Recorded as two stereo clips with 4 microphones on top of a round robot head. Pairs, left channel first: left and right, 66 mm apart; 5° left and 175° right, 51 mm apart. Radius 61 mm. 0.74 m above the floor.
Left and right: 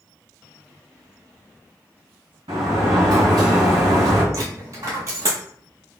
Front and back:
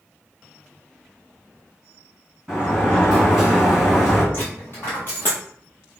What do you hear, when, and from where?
2.5 s a sliding door: 80° right, 1.8 m
4.3 s a dropped coin: 60° right, 1.0 m